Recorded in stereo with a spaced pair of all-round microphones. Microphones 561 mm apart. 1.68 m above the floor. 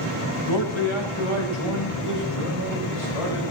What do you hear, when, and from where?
0.5 s a man speaking: 55° left (ahead or behind), 2.5 m; by 3.4 s 70° left (ahead or behind), 4.5 m